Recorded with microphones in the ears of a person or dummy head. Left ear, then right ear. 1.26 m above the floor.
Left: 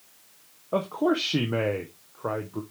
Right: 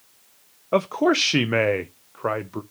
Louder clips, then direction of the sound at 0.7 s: Right 5 dB; 70° right (ahead or behind).